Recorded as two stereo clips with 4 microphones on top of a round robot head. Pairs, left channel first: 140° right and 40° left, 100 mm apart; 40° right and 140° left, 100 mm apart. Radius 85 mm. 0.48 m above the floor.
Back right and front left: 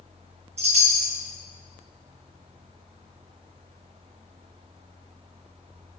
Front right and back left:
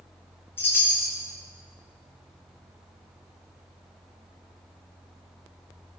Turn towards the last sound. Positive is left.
turn(degrees=30)